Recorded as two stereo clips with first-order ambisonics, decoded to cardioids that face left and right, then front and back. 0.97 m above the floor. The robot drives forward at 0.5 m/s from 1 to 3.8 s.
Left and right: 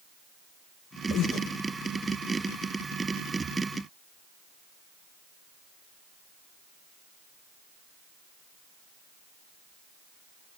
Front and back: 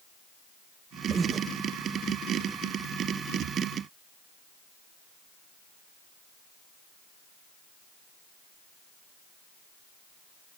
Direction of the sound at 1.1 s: 110° left.